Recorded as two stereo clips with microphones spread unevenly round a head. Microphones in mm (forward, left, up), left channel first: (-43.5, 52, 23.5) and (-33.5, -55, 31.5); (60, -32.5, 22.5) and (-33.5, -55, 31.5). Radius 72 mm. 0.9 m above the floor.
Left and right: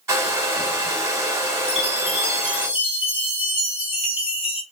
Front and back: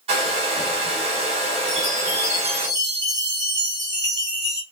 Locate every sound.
0.1 s a hair dryer: 150° right, 1.1 m
1.7 s a chime: 130° left, 1.0 m